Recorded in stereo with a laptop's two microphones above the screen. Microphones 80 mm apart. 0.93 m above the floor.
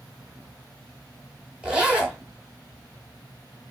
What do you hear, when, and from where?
1.6 s a zipper: 15° right (ahead or behind), 1.6 m